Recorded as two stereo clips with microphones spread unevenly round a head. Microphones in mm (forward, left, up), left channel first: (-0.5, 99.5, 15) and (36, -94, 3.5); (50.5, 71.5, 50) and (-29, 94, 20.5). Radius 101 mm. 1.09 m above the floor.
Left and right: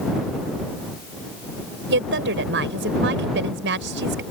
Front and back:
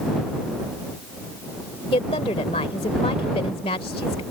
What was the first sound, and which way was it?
A woman speaking, 50° right.